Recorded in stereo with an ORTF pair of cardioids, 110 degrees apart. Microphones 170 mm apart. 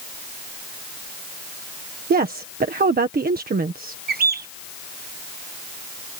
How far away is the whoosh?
I don't hear a whoosh.